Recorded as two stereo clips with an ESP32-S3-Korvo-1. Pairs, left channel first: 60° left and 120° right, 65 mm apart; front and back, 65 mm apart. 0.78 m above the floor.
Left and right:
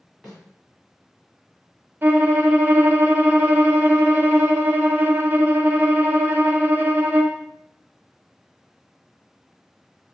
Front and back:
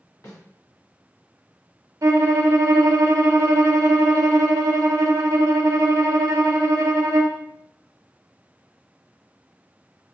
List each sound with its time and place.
0.2 s a snare drum: 25° right, 1.9 m
2.0 s a violin: 175° right, 0.6 m